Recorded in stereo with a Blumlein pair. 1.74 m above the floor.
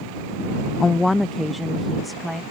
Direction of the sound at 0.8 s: 15° left.